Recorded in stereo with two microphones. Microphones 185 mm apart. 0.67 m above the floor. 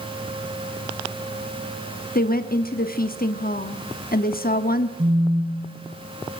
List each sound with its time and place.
2.1 s a woman speaking: 55° left (ahead or behind), 1.1 m
5.0 s a phone buzzing: 40° right (ahead or behind), 8.5 m